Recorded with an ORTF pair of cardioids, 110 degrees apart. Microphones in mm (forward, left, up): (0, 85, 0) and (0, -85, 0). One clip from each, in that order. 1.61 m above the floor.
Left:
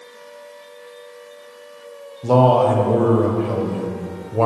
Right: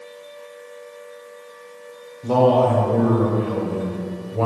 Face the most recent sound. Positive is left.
turn(degrees=25)